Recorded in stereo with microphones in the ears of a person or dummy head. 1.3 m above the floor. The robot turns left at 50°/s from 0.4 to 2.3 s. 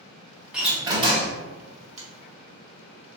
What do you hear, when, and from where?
0.5 s a door slam: straight ahead, 1.0 m; by 1.4 s 40° right, 1.0 m
2.0 s a finger snap: 45° right (ahead or behind), 1.3 m; by 2.1 s 50° right (ahead or behind), 1.3 m